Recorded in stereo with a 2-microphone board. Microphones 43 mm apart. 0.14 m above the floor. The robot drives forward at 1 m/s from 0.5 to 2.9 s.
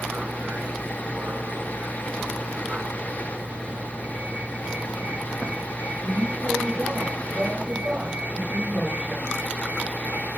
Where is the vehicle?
35° right (ahead or behind).